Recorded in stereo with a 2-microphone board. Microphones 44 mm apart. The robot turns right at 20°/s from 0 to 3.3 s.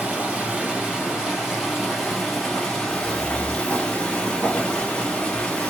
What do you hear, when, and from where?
0.0 s running water: 45° right, 1.5 m; by 5.7 s 20° left, 1.5 m
2.9 s footsteps: 25° left (ahead or behind), 1.5 m; by 5.7 s 5° left (ahead or behind), 2.5 m